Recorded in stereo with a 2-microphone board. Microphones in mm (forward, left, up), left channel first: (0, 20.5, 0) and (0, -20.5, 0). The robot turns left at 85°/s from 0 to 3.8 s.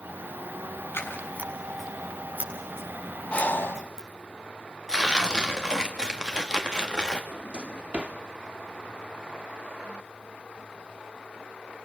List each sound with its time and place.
0.9 s scissors: 80° left, 7.5 m; by 4.1 s 15° right (ahead or behind), 7.5 m
3.3 s breathing: 145° left, 1.3 m; by 3.8 s 110° left, 1.3 m
4.9 s tearing paper: 20° right (ahead or behind), 2.5 m
7.3 s a drawer: 30° right (ahead or behind), 2 m